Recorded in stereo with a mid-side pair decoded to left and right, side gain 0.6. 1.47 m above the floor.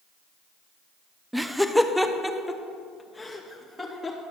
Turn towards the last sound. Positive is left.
turn(degrees=10)